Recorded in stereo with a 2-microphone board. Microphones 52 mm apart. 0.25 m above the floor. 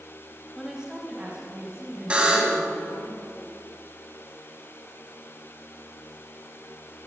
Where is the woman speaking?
5° right (ahead or behind), 1.0 m; by 3.1 s 40° right (ahead or behind), 4.5 m.